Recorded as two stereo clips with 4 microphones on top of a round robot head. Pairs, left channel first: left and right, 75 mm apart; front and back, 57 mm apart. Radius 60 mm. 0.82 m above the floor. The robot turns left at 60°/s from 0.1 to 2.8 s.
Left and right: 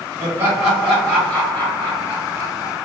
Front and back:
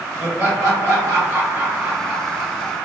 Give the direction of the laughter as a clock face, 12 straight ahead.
5 o'clock.